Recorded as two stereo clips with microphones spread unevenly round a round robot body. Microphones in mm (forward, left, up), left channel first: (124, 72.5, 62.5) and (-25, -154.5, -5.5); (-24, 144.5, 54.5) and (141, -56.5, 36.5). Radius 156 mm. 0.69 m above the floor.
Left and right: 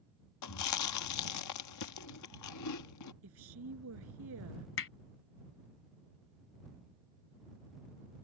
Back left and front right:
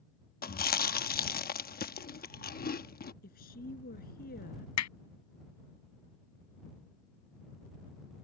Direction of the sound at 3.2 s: 170° right.